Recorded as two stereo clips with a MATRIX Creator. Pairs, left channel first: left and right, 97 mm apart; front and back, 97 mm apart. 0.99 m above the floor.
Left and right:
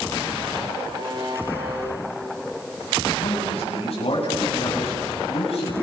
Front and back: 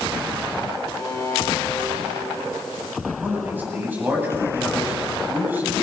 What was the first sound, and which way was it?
A buzzer, 50° right.